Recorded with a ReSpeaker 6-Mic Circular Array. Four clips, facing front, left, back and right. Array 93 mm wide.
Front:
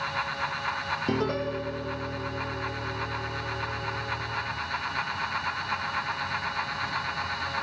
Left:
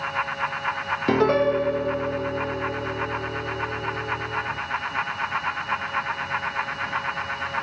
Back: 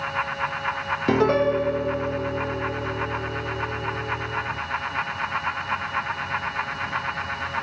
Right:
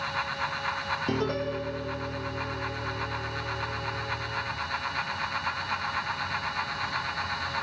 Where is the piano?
130° left.